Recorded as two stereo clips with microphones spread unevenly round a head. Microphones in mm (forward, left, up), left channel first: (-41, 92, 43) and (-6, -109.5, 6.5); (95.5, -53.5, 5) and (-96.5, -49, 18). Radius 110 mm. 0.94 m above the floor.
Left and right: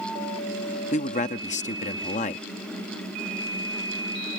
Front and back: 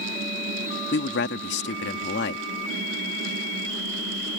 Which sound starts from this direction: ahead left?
A man speaking, at 0.9 s.